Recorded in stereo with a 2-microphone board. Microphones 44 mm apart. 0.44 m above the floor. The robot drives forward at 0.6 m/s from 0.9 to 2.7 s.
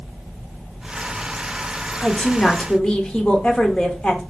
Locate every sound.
2.0 s a woman speaking: 25° left (ahead or behind), 0.9 m